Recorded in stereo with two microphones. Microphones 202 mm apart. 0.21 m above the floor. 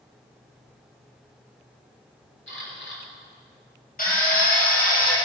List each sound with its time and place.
2.5 s a camera shutter: 65° left (ahead or behind), 3.5 m
4.0 s a drill: 45° left (ahead or behind), 4 m